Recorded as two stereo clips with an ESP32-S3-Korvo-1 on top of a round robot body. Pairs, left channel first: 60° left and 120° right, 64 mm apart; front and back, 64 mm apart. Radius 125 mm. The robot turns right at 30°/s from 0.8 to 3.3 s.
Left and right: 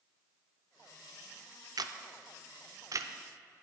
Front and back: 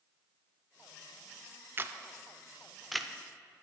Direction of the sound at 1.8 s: 125° right.